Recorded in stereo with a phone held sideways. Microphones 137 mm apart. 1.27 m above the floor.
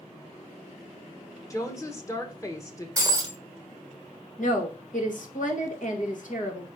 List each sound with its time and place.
1.5 s a woman speaking: 25° left (ahead or behind), 1.4 m
3.0 s breaking glass: 25° right (ahead or behind), 1.1 m
4.4 s a woman speaking: 70° left (ahead or behind), 1.9 m